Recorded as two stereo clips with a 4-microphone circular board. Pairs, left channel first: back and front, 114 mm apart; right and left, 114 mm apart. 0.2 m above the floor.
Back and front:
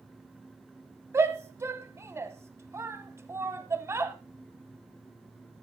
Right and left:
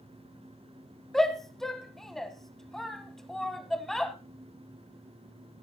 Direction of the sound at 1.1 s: 5° right.